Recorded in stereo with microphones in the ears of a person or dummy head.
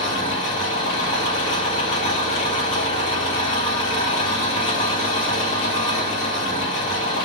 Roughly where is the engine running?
Left.